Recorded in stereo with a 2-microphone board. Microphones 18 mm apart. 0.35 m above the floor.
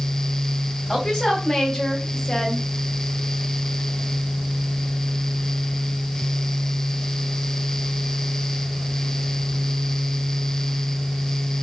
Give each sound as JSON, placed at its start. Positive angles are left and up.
{"t": 0.9, "sound": "a woman speaking", "side_deg": 35, "distance_m": 2.5}